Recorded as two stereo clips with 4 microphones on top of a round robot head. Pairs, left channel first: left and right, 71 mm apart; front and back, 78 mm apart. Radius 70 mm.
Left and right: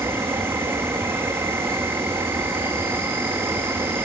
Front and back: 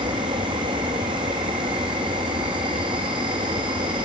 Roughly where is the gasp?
I don't hear a gasp.